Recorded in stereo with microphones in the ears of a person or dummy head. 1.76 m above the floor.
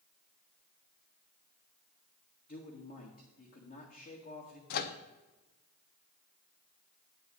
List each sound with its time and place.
2.5 s a man speaking: 50° left (ahead or behind), 1.9 m
4.7 s a microwave: 55° left (ahead or behind), 0.7 m